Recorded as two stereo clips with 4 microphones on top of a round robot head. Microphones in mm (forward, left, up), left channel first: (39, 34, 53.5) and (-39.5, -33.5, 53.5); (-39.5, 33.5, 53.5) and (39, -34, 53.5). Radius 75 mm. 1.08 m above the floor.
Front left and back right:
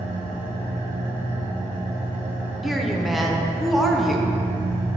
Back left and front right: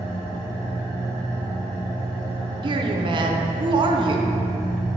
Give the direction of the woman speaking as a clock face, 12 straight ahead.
2 o'clock.